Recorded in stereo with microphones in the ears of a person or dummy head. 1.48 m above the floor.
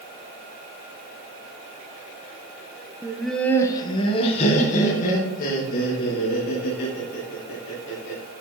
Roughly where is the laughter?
Centre.